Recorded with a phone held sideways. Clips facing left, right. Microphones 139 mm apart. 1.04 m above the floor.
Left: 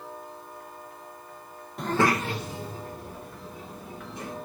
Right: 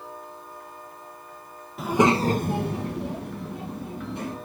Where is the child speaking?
Centre (ahead or behind), 0.6 m; by 4.4 s 65° right (ahead or behind), 1.9 m.